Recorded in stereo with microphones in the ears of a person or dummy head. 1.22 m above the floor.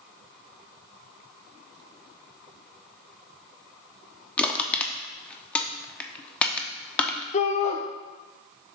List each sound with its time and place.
4.4 s crushing: 15° left (ahead or behind), 0.9 m
7.3 s a shout: 40° left (ahead or behind), 0.8 m